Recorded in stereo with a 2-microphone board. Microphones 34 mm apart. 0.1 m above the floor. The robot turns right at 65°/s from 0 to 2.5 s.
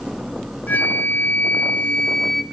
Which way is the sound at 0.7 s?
60° left.